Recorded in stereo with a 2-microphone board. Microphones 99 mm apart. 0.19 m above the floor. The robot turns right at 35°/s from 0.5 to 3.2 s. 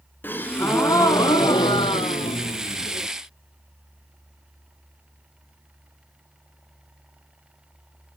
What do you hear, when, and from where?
0.2 s a gasp: 20° left, 0.9 m; by 3.1 s 110° left, 0.9 m